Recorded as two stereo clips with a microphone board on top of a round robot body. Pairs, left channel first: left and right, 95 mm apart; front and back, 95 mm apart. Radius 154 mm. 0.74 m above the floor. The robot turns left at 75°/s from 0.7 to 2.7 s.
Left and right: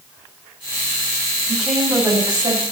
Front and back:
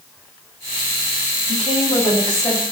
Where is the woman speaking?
15° left, 5.5 m; by 2.6 s 70° right, 5.5 m.